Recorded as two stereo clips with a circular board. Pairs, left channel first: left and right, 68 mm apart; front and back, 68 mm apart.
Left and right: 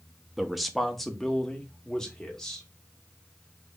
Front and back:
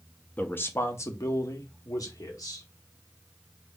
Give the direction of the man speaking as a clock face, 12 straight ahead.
12 o'clock.